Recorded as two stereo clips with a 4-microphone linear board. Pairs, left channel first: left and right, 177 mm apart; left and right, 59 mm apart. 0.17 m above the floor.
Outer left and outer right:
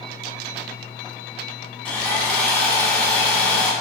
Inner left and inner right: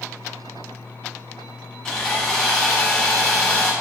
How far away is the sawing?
About 0.8 m.